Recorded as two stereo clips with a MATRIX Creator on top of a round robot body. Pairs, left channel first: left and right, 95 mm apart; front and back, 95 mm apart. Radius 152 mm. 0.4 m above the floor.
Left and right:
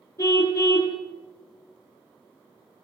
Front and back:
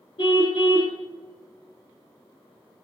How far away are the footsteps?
I don't hear footsteps.